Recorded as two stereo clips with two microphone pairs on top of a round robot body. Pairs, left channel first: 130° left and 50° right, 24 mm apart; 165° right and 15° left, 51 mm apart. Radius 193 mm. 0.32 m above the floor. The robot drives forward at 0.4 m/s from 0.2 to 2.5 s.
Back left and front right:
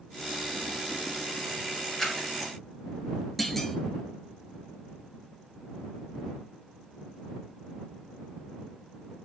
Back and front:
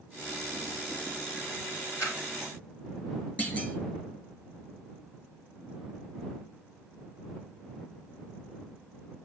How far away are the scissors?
About 7.5 m.